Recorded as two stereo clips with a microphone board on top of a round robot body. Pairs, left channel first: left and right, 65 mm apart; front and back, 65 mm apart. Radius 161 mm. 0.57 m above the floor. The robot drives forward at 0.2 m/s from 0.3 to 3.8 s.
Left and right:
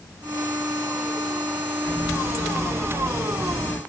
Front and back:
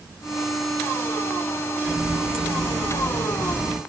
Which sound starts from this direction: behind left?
A running tap, at 1.8 s.